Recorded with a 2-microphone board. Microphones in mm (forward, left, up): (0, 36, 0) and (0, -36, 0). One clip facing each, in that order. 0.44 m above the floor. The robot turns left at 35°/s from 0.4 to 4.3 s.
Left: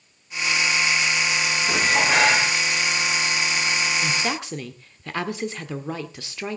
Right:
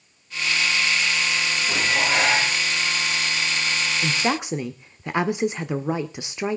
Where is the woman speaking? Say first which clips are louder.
Right 2 dB; 15° right (ahead or behind), 0.8 m; by 6.6 s 20° right (ahead or behind), 0.8 m.